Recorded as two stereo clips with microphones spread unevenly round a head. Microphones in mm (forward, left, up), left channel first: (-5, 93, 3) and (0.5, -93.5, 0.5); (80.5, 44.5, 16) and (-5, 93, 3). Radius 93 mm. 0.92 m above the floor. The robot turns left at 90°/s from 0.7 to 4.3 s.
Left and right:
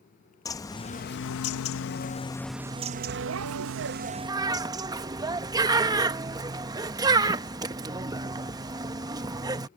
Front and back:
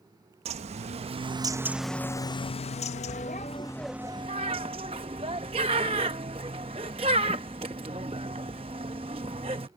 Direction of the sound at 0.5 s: 165° left.